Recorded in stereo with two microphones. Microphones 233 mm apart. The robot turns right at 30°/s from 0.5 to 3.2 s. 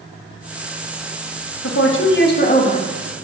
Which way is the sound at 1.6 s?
115° left.